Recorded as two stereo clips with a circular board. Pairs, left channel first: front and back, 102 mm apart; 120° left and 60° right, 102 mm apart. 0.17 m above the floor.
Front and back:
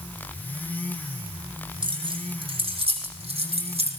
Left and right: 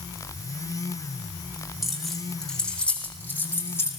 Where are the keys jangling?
150° right, 6 m; by 3.9 s 175° right, 6.5 m.